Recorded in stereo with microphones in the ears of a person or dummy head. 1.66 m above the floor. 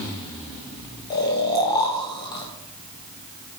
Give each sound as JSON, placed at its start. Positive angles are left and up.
{"t": 1.1, "sound": "snoring", "side_deg": 25, "distance_m": 0.7}